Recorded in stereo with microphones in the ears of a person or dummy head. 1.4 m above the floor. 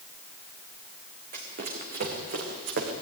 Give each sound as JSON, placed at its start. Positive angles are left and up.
{"t": 1.3, "sound": "running footsteps", "side_deg": -50, "distance_m": 5.0}